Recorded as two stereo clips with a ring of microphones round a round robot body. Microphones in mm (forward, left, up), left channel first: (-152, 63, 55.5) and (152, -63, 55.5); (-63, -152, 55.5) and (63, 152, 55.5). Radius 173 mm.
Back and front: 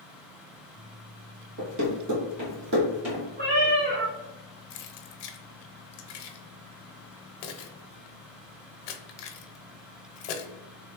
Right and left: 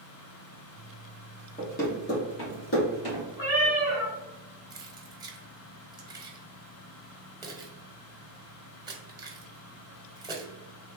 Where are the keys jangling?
145° left, 0.7 m.